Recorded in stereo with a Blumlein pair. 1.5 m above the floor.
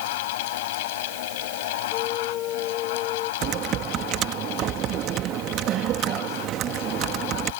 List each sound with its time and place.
0.0 s a fan: 50° left
1.9 s a flute: 35° left
3.4 s typing on a keyboard: 30° right